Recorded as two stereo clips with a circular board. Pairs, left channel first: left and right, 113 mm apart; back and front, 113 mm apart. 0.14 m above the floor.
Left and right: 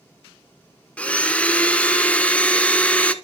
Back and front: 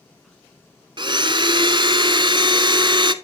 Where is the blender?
15° left, 0.7 m.